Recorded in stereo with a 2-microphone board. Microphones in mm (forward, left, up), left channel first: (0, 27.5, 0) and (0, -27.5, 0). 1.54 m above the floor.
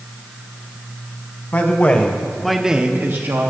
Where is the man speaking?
40° left (ahead or behind), 1.8 m; by 3.5 s 65° right (ahead or behind), 1.2 m.